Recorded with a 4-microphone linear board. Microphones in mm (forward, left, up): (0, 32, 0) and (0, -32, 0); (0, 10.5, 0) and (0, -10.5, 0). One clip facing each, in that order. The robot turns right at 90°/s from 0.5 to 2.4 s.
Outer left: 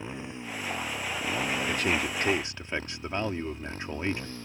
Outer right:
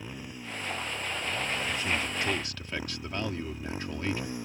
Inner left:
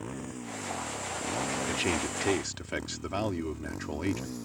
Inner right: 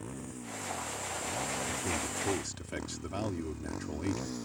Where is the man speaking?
90° left; by 4.3 s 155° left.